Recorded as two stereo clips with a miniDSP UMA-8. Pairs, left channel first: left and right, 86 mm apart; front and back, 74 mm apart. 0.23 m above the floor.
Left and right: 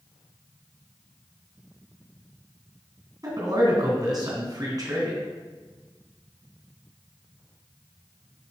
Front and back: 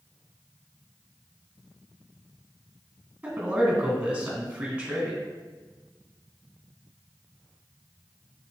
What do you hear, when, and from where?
3.2 s a man speaking: 105° right, 2.5 m